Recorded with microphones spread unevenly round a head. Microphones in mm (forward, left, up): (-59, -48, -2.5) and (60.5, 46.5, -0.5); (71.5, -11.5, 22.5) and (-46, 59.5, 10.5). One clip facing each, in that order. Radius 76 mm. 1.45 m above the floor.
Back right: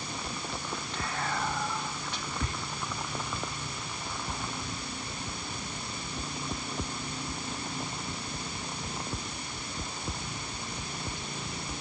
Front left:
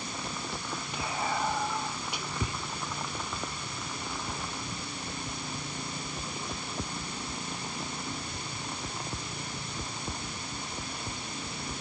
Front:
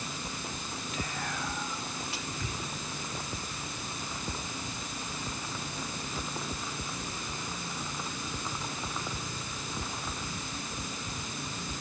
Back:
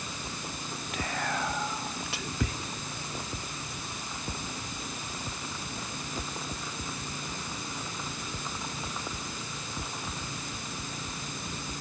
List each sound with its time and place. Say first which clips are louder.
0.9 s whispering: front left 2 dB, back 5 dB; 115° left, 1.2 m